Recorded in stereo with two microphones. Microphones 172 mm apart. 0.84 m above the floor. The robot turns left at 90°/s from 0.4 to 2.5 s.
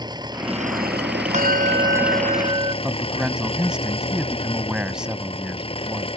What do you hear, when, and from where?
0.0 s an engine running: 25° right; by 6.2 s 145° left
1.3 s a bell: 45° right; by 2.7 s 150° right
2.8 s a man speaking: 5° right (ahead or behind)